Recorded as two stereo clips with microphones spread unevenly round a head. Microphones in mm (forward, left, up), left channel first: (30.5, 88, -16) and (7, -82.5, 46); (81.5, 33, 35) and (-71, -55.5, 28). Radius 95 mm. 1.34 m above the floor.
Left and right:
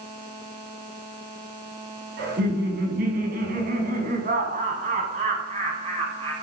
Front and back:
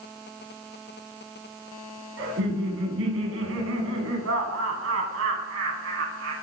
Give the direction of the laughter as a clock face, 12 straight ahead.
4 o'clock.